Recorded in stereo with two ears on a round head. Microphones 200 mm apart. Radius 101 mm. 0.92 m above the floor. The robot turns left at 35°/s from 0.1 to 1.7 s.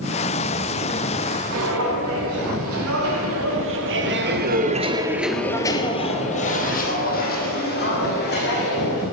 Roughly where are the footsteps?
Right.